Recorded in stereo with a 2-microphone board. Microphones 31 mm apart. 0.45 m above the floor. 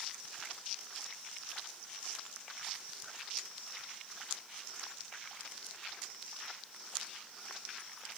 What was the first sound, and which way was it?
Only background noise.